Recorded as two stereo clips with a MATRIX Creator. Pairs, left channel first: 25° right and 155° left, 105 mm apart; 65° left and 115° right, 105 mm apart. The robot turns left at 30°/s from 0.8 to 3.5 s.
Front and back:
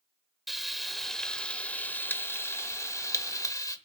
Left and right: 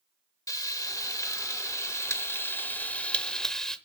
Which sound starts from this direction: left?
Frying, at 0.5 s.